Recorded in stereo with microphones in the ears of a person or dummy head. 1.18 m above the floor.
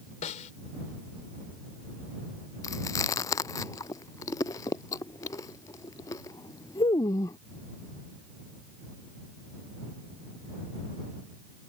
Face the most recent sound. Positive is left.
turn(degrees=20)  # may be behind; listen again after turning